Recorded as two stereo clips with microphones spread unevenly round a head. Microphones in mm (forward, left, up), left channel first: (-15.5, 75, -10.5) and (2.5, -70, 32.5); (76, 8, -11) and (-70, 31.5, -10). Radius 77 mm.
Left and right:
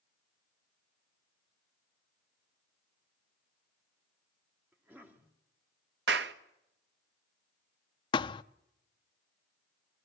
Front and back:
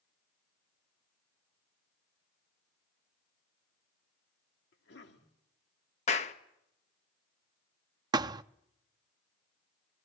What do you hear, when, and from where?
4.7 s a cough: 5° right, 2.5 m
6.1 s a clap: 60° right, 1.3 m
8.1 s a thud: 155° left, 0.7 m